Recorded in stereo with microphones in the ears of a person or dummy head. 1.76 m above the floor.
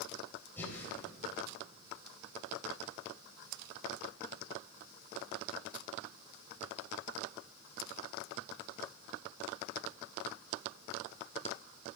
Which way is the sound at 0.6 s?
15° left (ahead or behind).